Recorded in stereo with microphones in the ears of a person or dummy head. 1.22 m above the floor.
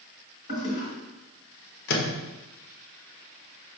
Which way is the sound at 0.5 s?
40° left (ahead or behind).